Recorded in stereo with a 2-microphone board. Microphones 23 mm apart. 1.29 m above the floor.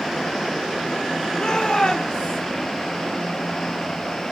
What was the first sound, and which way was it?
A shout, 40° left (ahead or behind).